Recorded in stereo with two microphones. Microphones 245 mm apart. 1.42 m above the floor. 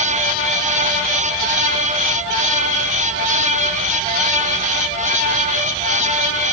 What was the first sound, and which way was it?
Only background noise.